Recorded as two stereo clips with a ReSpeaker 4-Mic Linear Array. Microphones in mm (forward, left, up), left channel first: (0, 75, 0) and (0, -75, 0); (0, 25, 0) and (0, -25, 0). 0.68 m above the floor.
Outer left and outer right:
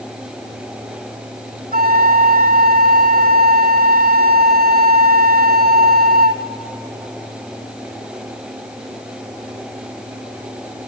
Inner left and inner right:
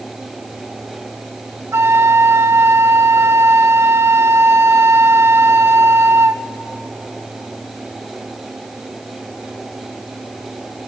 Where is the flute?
80° right, 0.7 m.